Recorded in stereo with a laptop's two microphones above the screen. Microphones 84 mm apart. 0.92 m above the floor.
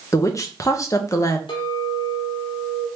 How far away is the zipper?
No zipper in this recording.